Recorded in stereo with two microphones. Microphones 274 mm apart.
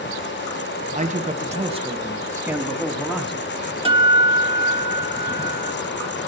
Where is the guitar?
20° right (ahead or behind), 0.7 m.